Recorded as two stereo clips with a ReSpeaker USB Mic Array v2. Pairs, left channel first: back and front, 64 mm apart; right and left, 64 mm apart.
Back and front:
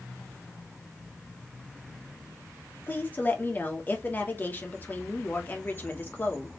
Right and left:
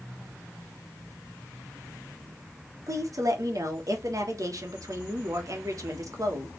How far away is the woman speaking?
About 1.4 m.